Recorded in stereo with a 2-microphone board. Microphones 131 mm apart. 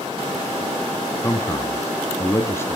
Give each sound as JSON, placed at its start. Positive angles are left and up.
{"t": 1.2, "sound": "a man speaking", "side_deg": 20, "distance_m": 1.1}